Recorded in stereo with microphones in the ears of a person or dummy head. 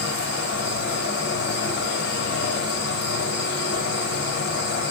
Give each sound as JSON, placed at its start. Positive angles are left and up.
{"t": 0.0, "sound": "an insect", "side_deg": 65, "distance_m": 1.7}